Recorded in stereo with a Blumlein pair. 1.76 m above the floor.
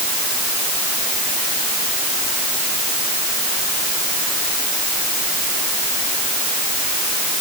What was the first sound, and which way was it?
Only background noise.